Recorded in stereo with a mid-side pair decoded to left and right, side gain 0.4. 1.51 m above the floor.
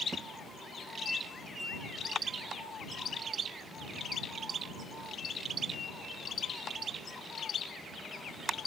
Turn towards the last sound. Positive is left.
turn(degrees=-45)